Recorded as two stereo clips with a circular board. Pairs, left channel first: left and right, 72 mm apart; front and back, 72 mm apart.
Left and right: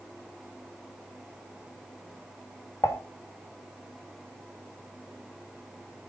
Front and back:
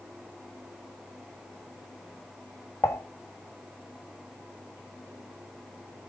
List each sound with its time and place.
2.8 s dishes clattering: 45° left, 1.7 m